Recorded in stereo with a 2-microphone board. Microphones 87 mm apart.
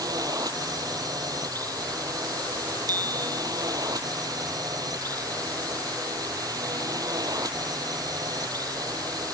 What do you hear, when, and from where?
0.0 s a drone: 45° right (ahead or behind)
2.9 s a bicycle bell: 45° right (ahead or behind)